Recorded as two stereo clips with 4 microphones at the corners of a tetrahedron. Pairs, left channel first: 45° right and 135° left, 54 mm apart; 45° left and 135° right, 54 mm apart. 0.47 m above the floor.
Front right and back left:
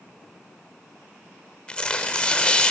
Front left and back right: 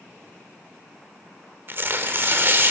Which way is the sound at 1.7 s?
110° right.